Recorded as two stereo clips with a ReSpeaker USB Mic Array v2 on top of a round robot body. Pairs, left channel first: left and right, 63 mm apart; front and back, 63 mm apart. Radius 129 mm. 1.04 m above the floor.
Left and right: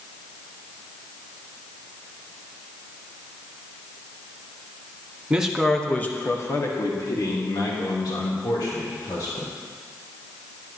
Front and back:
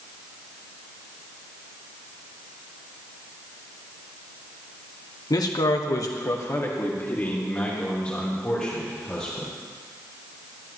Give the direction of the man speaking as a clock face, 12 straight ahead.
1 o'clock.